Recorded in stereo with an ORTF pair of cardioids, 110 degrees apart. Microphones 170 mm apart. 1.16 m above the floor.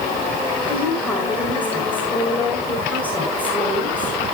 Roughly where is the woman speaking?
Ahead.